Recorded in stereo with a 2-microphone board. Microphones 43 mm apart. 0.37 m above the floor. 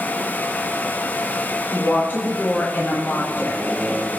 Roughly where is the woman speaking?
Left.